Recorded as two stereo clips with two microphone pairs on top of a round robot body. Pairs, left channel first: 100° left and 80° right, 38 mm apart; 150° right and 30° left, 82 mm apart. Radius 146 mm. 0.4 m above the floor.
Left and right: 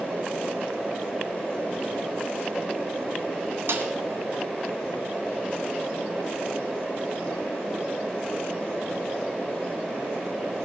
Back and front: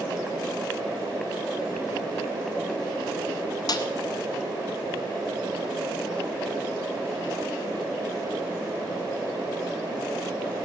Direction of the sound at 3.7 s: 110° right.